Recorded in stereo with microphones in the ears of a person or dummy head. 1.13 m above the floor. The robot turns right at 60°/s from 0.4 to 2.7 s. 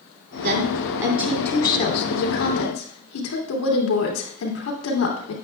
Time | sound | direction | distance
0.4 | a woman speaking | 50° right | 3 m